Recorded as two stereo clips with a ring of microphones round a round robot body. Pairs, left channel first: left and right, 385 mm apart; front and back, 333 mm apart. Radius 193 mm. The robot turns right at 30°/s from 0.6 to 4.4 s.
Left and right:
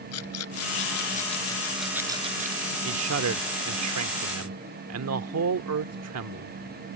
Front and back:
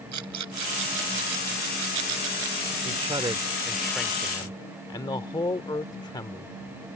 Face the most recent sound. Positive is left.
turn(degrees=-75)